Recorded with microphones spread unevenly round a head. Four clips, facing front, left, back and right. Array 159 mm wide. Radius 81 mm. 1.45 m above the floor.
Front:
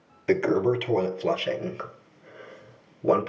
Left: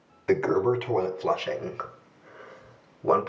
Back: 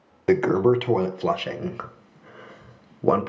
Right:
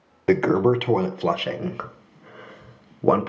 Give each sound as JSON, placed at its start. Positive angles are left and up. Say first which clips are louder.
{"t": 0.3, "sound": "a toilet flushing", "louder": "right 4 dB, back 4 dB", "azimuth_deg": -120, "distance_m": 1.0}